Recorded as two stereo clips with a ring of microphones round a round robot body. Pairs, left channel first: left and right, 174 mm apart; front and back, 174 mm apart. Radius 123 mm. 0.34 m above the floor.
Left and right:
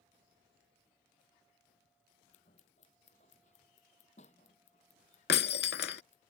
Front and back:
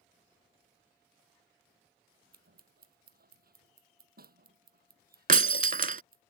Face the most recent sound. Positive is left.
turn(degrees=140)